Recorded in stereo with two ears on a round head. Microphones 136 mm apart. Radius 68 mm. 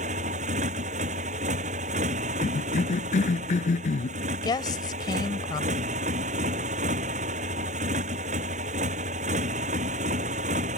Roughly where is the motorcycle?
Right.